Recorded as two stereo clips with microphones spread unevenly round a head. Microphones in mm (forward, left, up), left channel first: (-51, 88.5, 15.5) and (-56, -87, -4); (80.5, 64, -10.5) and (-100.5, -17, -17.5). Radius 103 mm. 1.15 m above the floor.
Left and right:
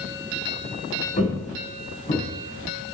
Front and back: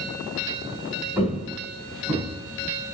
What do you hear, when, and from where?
1.2 s footsteps: 125° left, 3.5 m; by 2.2 s 135° left, 4 m